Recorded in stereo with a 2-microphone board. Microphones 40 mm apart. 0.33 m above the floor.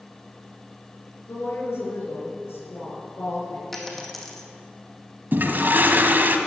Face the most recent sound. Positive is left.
turn(degrees=-60)  # may be behind; listen again after turning